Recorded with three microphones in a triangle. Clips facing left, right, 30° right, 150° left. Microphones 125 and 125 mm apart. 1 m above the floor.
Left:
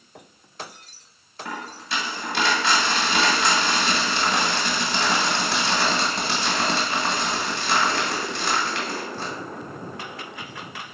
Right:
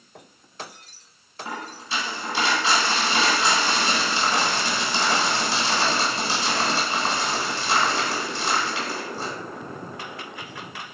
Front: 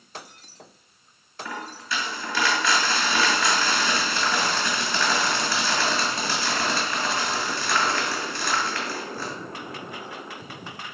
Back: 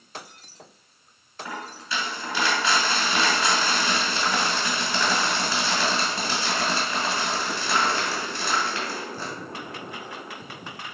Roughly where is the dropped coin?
Left.